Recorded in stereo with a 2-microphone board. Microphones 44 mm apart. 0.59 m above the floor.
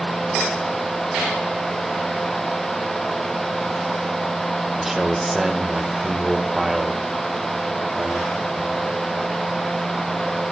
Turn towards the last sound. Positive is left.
turn(degrees=-10)  # may be behind; listen again after turning